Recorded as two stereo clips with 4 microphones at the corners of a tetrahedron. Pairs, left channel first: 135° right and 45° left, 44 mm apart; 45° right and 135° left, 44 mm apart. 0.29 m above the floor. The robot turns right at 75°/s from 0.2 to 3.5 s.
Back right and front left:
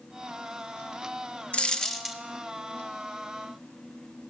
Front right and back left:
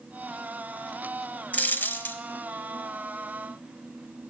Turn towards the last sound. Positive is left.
turn(degrees=65)